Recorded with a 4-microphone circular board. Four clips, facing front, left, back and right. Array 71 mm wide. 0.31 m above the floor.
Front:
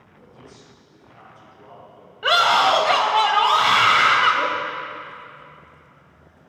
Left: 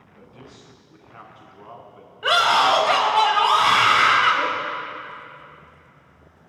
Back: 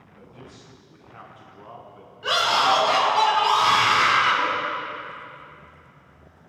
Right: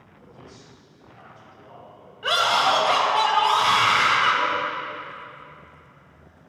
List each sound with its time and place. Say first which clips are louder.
0.1 s a man speaking: left 1 dB, back 1 dB; 120° left, 2.5 m
2.2 s a scream: left 3 dB, front 4 dB; 30° left, 1.2 m